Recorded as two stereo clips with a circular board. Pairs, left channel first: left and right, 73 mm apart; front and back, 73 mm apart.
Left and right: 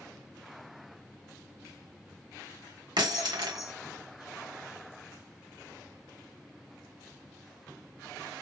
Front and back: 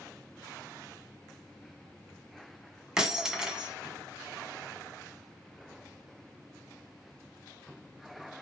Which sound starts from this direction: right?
Breaking glass, at 3.0 s.